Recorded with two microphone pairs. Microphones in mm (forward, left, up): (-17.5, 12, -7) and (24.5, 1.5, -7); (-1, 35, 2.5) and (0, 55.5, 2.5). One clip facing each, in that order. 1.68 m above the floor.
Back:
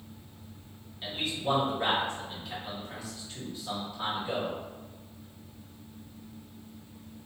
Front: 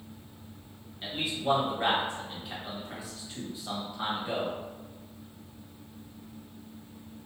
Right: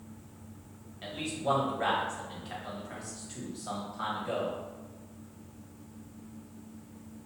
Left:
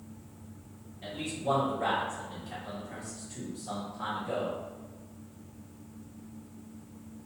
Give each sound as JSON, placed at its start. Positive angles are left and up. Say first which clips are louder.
{"t": 1.0, "sound": "a man speaking", "louder": "front 1 dB, right 1 dB", "azimuth_deg": -90, "distance_m": 1.3}